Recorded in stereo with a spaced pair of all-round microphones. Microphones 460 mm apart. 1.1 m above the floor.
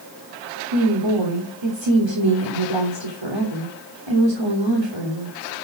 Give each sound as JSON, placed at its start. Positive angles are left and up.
{"t": 0.7, "sound": "a woman speaking", "side_deg": -75, "distance_m": 3.5}